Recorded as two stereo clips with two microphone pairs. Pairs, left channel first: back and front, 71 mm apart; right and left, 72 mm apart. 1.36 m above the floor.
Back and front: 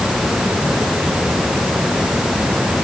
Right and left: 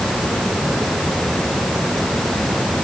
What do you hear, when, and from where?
Only background noise.